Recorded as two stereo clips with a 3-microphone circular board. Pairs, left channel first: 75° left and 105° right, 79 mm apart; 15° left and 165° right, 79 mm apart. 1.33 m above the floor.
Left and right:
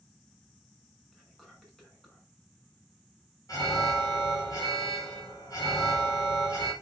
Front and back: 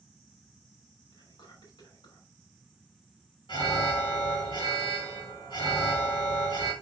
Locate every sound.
1.1 s whispering: 10° right, 5.5 m
3.5 s an alarm: 35° left, 4 m